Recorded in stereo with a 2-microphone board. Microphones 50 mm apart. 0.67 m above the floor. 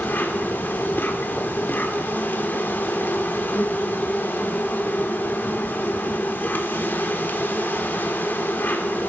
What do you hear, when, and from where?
0.0 s an insect: 40° left (ahead or behind), 1.1 m